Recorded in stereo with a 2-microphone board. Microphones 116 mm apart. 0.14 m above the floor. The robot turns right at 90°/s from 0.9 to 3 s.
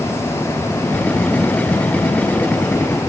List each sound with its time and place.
Only background noise.